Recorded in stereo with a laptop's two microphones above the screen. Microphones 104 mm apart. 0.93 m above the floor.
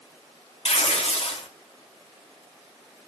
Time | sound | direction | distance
0.7 | tearing paper | 75° left (ahead or behind) | 1.4 m